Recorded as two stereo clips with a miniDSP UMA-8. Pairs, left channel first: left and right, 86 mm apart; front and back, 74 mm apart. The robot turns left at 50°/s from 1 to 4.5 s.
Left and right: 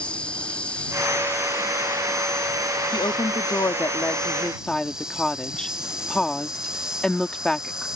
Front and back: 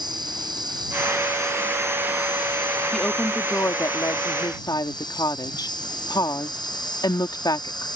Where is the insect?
165° left; by 8.0 s 10° right.